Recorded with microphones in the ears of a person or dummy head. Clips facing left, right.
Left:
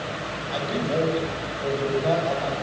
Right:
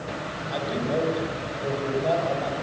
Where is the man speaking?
Centre (ahead or behind), 7 m.